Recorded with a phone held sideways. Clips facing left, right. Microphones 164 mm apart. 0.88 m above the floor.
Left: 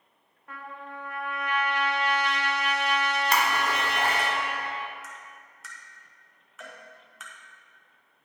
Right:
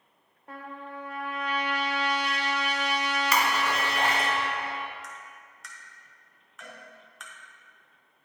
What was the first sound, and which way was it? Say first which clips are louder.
A trumpet: right 1 dB; 30° right (ahead or behind).